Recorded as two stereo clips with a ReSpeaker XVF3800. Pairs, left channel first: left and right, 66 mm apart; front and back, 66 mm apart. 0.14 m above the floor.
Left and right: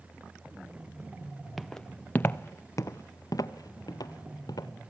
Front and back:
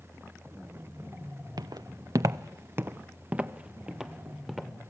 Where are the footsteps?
Straight behind, 0.7 m; by 4.7 s 95° left, 1.5 m.